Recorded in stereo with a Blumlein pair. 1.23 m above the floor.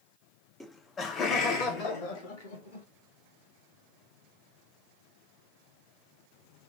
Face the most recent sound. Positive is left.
turn(degrees=55)